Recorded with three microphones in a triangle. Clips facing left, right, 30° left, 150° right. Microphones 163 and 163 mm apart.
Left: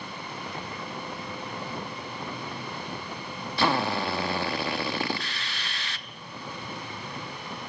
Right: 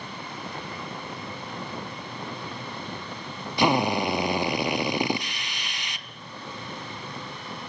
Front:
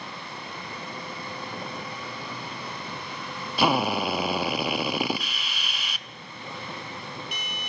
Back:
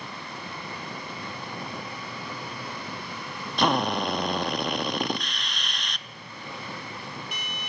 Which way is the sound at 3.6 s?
45° right.